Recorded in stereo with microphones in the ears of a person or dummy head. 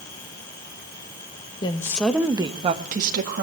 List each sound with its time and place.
1.6 s a woman speaking: 25° left (ahead or behind), 1.2 m; by 3.4 s 55° right (ahead or behind), 1.9 m